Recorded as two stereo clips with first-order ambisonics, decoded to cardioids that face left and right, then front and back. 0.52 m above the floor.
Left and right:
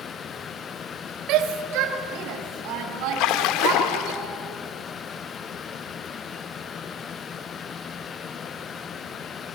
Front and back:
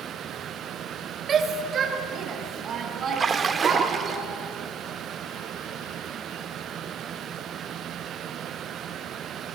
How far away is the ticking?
No ticking in this recording.